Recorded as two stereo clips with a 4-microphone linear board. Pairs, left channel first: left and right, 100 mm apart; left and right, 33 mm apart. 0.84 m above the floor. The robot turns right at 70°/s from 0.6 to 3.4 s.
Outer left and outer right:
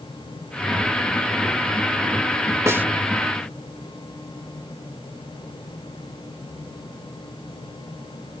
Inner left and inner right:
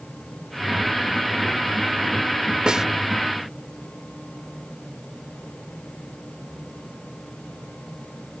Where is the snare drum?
30° right (ahead or behind); by 2.9 s 15° right (ahead or behind).